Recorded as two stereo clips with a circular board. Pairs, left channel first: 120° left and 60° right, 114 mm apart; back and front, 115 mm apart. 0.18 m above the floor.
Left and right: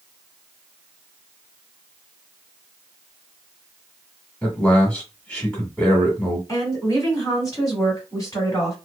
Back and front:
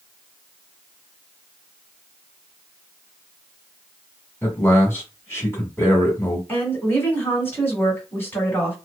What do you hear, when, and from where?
4.4 s a man speaking: 175° right, 1.3 m
6.5 s a woman speaking: 130° left, 1.7 m